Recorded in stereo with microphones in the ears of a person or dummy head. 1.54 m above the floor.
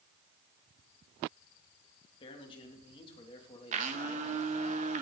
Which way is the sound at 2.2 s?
30° left (ahead or behind).